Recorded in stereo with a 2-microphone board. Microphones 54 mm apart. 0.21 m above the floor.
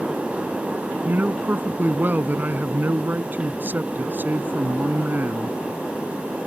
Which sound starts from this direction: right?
A man speaking, at 1.1 s.